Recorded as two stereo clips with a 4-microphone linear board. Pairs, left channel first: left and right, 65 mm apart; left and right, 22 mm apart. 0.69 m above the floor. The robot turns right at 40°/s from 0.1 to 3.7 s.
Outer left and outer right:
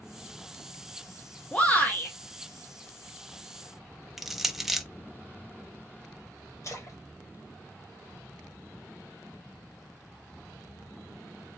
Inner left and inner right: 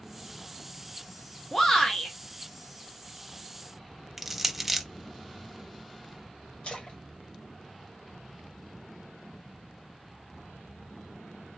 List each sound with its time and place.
1.5 s a shout: 20° left (ahead or behind), 0.8 m; by 2.1 s 30° left (ahead or behind), 0.8 m
4.2 s crushing: 5° right (ahead or behind), 0.5 m
6.6 s a splash: 55° left (ahead or behind), 1.7 m